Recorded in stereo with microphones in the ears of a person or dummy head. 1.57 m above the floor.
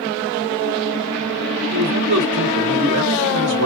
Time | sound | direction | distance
1.7 | a man speaking | 65° right (ahead or behind) | 1.3 m